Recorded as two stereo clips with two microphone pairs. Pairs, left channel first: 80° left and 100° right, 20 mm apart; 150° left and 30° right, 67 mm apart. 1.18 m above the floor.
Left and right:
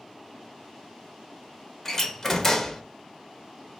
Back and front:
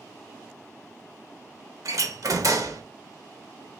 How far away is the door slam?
About 0.8 m.